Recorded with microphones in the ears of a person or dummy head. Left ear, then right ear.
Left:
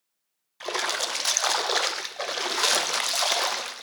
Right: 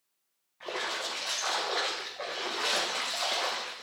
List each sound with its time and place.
0.6 s a splash: 75° left (ahead or behind), 0.8 m